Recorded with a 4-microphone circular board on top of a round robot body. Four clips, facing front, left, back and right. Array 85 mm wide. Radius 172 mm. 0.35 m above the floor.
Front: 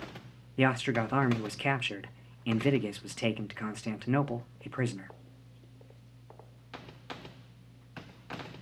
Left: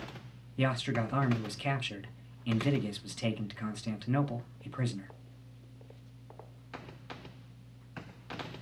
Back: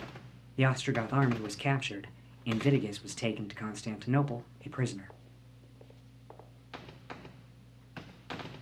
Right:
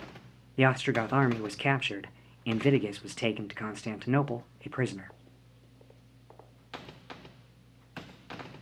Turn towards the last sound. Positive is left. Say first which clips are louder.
# right 6 dB, front 3 dB
turn(degrees=-75)